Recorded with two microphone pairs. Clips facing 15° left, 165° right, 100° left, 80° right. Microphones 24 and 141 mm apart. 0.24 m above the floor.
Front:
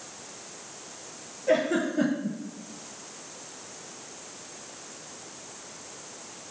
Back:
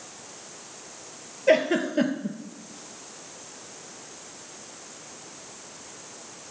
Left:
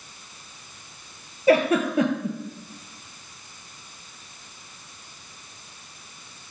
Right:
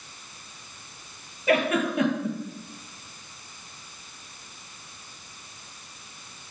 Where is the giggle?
155° left, 0.7 m.